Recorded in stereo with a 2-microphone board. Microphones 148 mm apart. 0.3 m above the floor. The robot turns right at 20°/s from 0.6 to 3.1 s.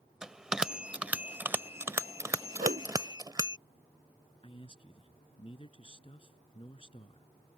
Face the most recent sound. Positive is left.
turn(degrees=35)  # may be behind; listen again after turning